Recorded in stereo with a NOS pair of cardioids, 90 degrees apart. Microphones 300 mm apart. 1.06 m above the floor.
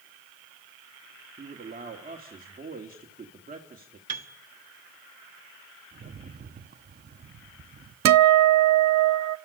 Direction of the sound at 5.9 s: 30° right.